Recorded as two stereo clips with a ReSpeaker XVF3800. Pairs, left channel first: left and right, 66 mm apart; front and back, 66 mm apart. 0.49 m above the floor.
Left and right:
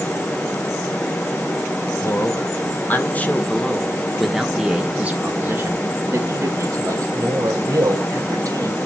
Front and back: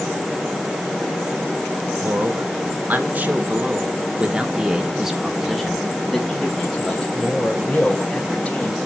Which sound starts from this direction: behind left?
A man speaking, at 2.0 s.